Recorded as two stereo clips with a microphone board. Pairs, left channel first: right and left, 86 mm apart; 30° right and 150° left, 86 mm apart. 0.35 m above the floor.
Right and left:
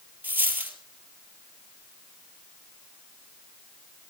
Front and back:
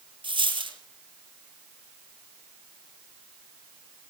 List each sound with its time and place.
0.2 s a dropped coin: 160° left, 3.5 m